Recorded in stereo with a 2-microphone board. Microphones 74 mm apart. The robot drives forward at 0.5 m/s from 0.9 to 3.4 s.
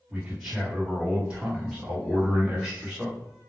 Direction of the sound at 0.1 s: 15° right (ahead or behind).